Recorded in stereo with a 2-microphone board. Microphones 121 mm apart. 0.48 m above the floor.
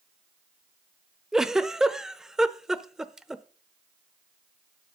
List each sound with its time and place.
1.3 s a giggle: 5° right (ahead or behind), 0.6 m